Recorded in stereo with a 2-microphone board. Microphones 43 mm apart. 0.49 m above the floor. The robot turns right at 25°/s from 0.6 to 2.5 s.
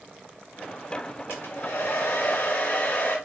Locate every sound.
1.3 s a hair dryer: 80° left, 1.7 m; by 3.2 s 50° left (ahead or behind), 1.7 m